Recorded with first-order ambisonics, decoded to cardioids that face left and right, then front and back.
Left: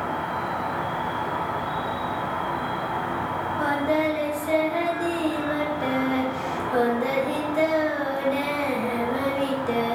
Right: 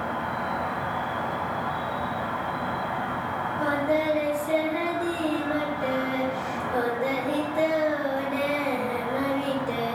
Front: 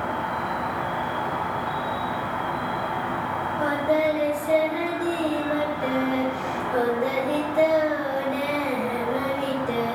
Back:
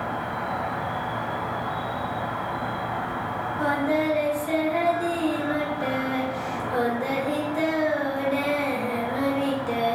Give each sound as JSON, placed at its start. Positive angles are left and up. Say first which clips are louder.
{"t": 0.0, "sound": "an insect", "louder": "left 2 dB, front 2 dB", "azimuth_deg": 55, "distance_m": 1.1}
{"t": 3.6, "sound": "singing", "louder": "left 1 dB, front 2 dB", "azimuth_deg": 110, "distance_m": 0.9}